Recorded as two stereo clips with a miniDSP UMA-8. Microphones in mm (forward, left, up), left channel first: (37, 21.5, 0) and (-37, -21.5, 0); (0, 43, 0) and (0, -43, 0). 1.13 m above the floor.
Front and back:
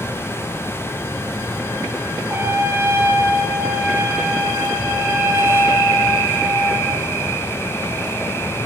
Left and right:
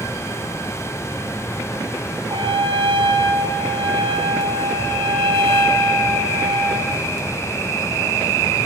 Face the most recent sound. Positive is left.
turn(degrees=-90)